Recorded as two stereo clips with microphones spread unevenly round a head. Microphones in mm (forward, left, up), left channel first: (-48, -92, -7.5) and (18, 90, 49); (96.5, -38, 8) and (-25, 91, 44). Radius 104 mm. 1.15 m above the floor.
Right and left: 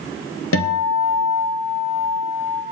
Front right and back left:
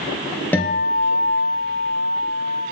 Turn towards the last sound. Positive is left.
turn(degrees=-130)